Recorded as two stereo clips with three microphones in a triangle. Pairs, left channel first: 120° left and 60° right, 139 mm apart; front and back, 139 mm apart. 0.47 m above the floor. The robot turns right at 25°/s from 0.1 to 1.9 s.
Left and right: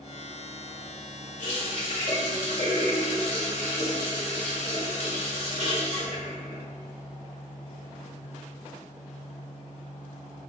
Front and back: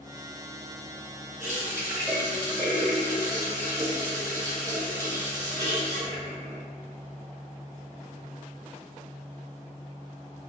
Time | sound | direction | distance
1.4 | a running tap | 105° left | 1.3 m